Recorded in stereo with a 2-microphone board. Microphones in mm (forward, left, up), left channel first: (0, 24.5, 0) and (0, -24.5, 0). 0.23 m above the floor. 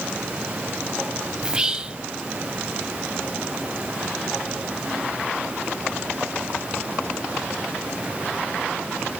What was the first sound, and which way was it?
Whispering, 20° right (ahead or behind).